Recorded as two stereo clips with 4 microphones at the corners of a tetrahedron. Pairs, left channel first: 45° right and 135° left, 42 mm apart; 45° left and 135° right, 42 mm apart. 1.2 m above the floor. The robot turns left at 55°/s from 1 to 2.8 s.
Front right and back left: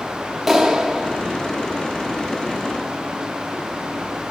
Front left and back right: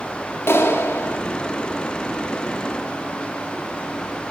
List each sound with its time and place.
0.5 s a clap: 50° left, 1.6 m; by 1.2 s 35° left, 1.6 m